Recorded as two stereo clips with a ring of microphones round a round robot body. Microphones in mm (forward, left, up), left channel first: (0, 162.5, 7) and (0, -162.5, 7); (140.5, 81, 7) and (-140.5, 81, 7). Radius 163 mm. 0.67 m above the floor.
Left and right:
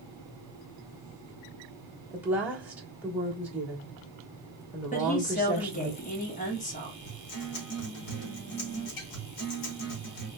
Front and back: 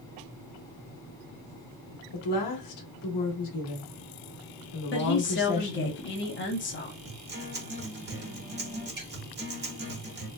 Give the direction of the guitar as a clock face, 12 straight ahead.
8 o'clock.